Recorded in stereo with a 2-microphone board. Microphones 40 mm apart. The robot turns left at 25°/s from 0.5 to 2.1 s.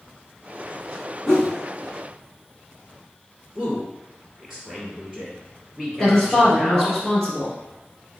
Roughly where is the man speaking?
Centre.